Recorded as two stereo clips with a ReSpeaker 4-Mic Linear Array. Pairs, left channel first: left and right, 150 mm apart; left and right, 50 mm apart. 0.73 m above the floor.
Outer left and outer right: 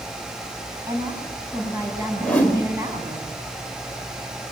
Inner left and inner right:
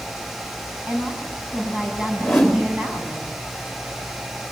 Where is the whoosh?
10° left (ahead or behind), 4 m.